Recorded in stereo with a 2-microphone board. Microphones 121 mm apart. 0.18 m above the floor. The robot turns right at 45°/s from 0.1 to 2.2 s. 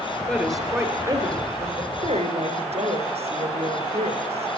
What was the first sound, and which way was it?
A woman speaking, 10° left (ahead or behind).